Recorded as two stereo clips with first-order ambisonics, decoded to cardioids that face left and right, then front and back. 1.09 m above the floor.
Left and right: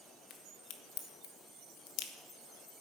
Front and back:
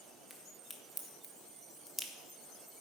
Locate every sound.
0.3 s a crack: 85° left, 1.2 m